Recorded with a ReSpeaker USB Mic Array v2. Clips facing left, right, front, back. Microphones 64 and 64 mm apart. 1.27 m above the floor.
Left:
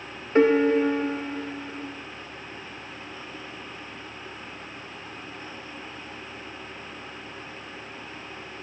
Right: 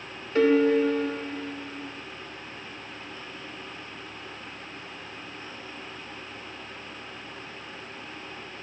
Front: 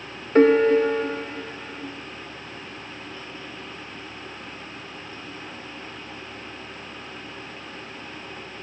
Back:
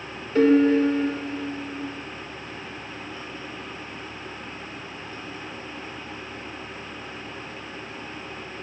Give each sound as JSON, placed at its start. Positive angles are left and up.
{"t": 0.3, "sound": "a piano", "azimuth_deg": 35, "distance_m": 0.7}